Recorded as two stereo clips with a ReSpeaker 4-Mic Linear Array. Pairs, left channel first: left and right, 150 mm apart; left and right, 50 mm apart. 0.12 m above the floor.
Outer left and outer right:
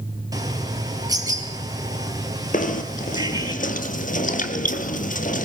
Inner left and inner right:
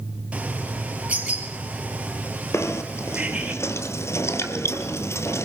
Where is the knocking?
65° left (ahead or behind), 1.7 m.